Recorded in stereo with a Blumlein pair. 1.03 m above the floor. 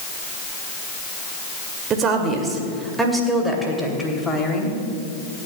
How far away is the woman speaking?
About 2 m.